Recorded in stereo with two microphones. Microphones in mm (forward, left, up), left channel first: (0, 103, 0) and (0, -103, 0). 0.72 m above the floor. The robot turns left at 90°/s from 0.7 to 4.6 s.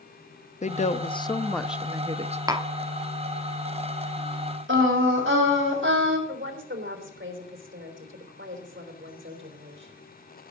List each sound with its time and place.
0.6 s a woman speaking: 85° left, 0.6 m; by 2.4 s 65° right, 0.6 m
2.5 s tapping: 20° right (ahead or behind), 0.9 m; by 2.7 s 35° right (ahead or behind), 0.9 m
4.7 s singing: 75° right (ahead or behind), 3 m
6.3 s a woman speaking: 70° right (ahead or behind), 3 m